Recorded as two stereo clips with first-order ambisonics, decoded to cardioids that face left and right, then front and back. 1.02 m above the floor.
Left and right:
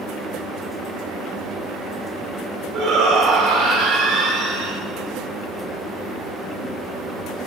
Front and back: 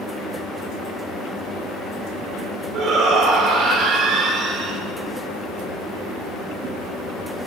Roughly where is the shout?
Right.